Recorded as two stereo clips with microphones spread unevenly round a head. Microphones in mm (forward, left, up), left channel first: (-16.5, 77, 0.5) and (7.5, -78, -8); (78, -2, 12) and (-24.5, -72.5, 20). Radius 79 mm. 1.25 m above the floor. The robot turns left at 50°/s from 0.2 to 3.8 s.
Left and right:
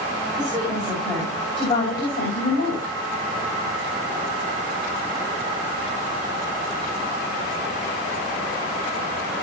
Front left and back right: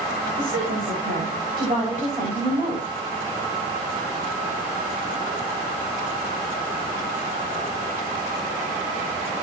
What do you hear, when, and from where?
0.4 s a woman speaking: 145° right, 6.5 m; by 2.9 s 90° left, 6.5 m